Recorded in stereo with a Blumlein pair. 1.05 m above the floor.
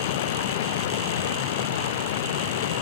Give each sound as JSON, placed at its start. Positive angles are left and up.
{"t": 0.0, "sound": "running water", "azimuth_deg": 55}